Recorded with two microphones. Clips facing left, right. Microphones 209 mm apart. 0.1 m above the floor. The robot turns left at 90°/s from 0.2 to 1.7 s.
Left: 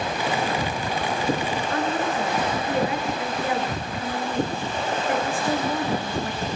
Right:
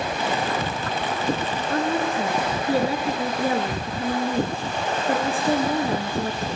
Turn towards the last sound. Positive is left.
turn(degrees=-35)  # may be behind; listen again after turning